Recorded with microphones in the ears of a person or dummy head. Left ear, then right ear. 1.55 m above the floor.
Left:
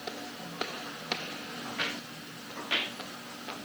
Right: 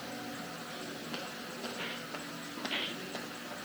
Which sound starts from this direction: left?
Footsteps, at 1.6 s.